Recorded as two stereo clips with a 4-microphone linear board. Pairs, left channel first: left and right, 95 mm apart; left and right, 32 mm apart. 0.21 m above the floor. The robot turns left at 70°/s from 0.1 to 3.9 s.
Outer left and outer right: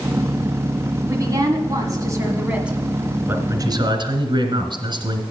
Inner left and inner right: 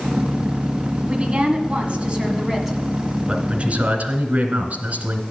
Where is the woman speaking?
55° right, 1.7 m; by 2.8 s 170° right, 1.7 m.